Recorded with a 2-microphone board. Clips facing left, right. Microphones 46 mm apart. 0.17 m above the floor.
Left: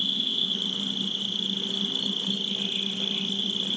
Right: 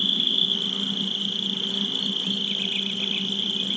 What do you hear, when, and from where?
0.0 s an insect: 50° right (ahead or behind), 1.8 m